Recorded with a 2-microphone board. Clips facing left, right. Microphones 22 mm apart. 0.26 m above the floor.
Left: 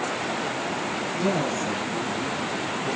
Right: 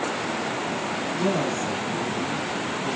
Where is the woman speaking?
20° left (ahead or behind), 6 m.